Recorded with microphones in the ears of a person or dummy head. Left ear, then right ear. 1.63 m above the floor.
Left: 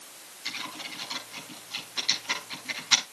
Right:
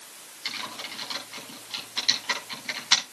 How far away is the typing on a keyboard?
About 9 m.